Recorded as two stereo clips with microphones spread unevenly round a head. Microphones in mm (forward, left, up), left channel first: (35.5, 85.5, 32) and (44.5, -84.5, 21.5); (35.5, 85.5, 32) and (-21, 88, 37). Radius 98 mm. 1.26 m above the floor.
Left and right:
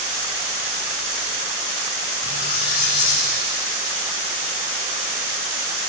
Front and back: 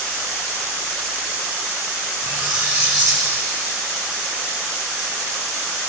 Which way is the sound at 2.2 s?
155° left.